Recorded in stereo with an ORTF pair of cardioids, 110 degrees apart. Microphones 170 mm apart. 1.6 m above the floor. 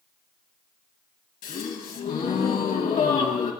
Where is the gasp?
55° left, 1.9 m.